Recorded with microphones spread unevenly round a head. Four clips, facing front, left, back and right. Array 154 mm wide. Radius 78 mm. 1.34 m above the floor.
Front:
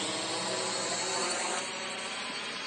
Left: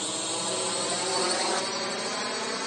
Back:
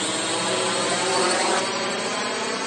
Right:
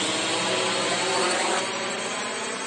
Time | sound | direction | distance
0.0 | a drone | 145° right | ?